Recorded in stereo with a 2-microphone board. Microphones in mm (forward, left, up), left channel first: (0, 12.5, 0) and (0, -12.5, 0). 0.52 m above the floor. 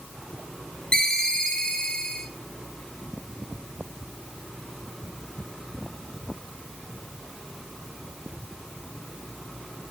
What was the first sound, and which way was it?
A ringtone, 30° left (ahead or behind).